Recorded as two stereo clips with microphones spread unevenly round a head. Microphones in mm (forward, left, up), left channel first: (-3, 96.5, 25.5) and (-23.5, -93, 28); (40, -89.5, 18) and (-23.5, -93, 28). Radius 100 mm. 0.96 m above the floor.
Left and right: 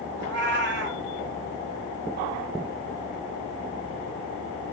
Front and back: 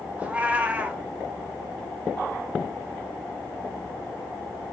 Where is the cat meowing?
115° right, 1.1 m.